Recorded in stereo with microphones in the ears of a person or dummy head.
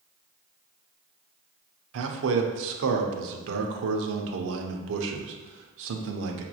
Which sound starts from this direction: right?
A man speaking, at 1.9 s.